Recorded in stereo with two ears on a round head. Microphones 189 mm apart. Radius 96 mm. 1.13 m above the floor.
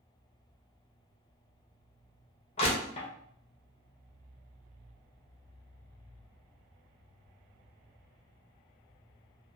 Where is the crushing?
30° left (ahead or behind), 0.7 m.